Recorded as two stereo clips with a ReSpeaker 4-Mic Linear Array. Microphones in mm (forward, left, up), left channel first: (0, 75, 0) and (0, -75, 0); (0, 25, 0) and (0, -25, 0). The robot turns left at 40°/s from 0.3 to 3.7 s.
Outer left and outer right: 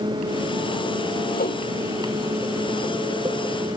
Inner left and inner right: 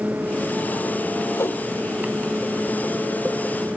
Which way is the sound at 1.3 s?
85° left.